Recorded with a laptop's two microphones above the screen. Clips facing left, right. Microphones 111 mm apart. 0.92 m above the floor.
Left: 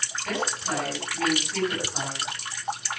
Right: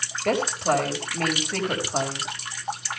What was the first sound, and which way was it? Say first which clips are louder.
A woman speaking: right 7 dB; 65° right (ahead or behind).